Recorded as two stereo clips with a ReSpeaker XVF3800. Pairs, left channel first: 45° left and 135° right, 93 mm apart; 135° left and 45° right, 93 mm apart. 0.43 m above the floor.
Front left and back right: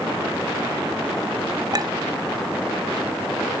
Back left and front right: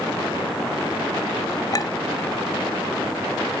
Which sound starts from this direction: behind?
A clink, at 1.7 s.